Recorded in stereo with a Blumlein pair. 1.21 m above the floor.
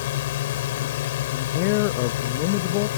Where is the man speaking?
45° left.